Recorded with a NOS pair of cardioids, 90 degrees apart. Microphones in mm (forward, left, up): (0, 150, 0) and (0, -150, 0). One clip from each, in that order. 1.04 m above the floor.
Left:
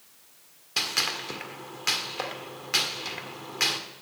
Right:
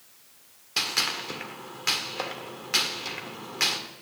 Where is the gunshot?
5° left, 1.6 m.